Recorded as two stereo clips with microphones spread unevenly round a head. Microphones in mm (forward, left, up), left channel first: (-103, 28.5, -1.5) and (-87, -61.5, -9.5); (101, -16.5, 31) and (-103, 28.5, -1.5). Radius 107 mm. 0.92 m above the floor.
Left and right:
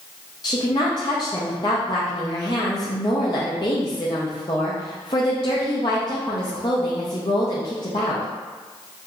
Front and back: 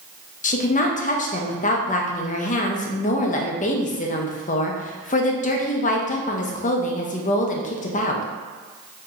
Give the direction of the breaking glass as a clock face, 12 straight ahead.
No breaking glass in this recording.